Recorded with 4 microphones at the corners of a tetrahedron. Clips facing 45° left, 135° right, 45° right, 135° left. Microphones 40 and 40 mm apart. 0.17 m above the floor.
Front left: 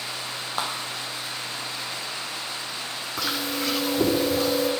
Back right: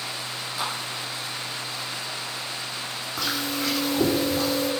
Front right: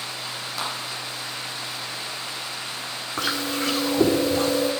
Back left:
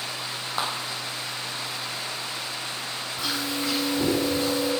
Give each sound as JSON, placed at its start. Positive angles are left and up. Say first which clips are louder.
{"t": 0.6, "sound": "a clap", "louder": "front left 1 dB, back left 2 dB", "azimuth_deg": 80, "distance_m": 5.5}
{"t": 3.2, "sound": "chewing", "louder": "even, front right 4 dB", "azimuth_deg": -40, "distance_m": 5.5}